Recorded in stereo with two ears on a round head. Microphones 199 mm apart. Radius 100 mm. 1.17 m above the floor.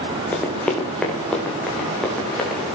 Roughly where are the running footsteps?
Centre.